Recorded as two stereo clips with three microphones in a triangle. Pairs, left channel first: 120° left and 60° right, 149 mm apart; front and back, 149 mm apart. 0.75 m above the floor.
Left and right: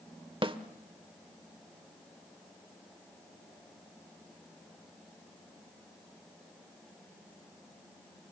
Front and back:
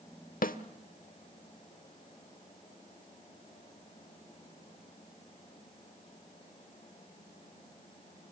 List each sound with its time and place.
0.4 s a snare drum: 10° right, 0.9 m